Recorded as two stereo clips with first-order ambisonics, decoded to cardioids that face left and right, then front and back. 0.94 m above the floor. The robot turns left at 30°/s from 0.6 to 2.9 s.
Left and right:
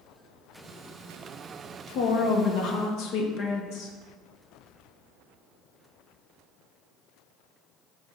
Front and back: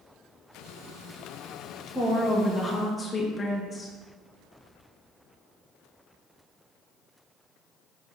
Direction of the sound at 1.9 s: 100° left.